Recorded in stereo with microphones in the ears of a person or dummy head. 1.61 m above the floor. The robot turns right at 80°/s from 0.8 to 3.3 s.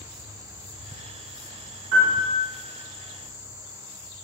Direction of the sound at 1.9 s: 115° right.